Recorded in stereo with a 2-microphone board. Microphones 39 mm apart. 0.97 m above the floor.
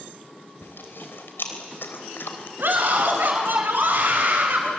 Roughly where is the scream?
Right.